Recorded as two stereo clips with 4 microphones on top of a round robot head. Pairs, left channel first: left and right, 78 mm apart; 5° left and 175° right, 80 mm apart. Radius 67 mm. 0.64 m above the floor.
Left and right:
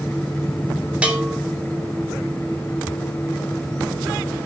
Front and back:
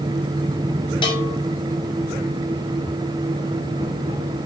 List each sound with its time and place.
1.0 s a bell: 15° right, 3.5 m